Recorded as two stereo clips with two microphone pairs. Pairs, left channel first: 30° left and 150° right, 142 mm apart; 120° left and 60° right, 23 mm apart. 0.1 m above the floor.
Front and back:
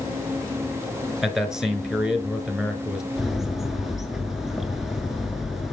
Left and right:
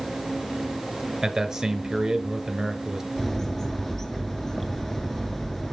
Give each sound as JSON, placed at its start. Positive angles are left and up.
{"t": 1.2, "sound": "a man speaking", "azimuth_deg": -75, "distance_m": 1.1}
{"t": 3.2, "sound": "a bird", "azimuth_deg": 135, "distance_m": 0.8}